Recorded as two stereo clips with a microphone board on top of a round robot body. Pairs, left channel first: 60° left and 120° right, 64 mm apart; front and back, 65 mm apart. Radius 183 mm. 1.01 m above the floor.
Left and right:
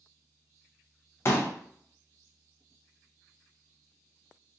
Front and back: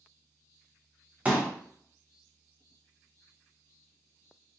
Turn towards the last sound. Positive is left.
turn(degrees=110)